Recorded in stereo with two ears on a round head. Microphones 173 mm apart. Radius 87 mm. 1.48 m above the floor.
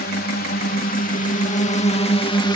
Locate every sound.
0.0 s a drone: 55° left (ahead or behind); by 2.5 s 25° left (ahead or behind)